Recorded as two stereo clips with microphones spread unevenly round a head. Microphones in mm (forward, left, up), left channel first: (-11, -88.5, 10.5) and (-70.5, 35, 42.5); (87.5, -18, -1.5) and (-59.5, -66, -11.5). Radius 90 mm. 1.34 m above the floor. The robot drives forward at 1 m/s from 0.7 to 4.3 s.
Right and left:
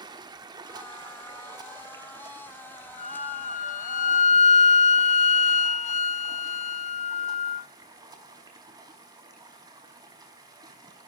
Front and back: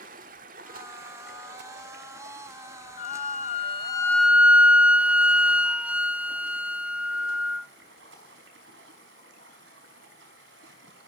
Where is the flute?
20° right, 1.5 m; by 7.7 s 85° right, 0.6 m.